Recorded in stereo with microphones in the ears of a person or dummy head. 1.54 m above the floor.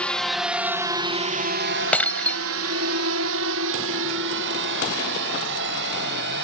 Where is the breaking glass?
5° left (ahead or behind).